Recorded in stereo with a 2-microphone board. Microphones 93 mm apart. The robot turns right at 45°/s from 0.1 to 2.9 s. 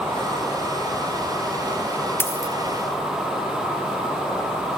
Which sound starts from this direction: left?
A dropped coin, at 2.2 s.